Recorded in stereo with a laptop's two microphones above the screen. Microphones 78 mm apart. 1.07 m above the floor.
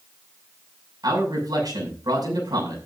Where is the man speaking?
55° right (ahead or behind), 6.5 m.